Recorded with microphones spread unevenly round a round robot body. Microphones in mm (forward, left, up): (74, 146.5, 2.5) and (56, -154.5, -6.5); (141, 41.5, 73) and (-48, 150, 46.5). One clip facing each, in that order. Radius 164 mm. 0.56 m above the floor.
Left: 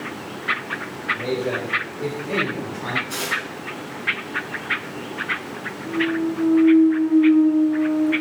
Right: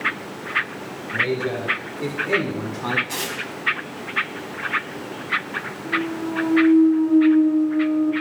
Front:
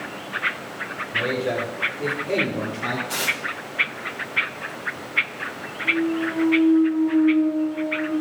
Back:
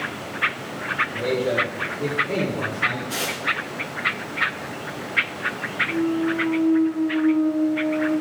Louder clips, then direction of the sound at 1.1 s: Even, back 2 dB; 125° right.